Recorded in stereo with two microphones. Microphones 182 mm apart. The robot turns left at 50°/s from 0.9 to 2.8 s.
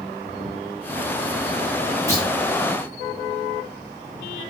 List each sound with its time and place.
2.1 s a clunk: 20° right (ahead or behind), 1.3 m; by 2.3 s 15° right (ahead or behind), 1.3 m